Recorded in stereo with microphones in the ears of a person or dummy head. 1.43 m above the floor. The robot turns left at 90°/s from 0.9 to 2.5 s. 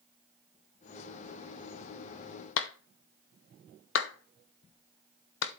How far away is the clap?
About 0.6 m.